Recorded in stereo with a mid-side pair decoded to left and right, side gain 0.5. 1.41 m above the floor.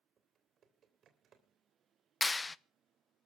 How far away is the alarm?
I don't hear an alarm.